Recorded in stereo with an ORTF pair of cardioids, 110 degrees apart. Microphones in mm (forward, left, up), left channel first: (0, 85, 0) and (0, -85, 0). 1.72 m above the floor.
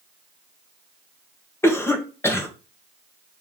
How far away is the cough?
About 2 m.